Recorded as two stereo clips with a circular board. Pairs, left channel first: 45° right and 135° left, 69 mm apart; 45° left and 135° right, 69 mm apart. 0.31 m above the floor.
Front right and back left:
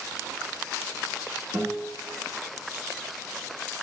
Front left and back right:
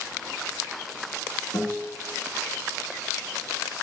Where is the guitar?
75° left, 1.3 m.